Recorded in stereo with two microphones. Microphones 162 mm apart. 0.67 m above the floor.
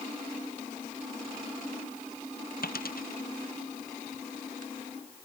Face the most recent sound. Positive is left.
turn(degrees=80)